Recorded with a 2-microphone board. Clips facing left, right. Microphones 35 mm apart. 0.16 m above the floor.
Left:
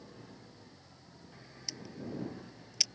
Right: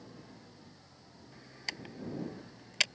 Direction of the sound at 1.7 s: 50° right (ahead or behind).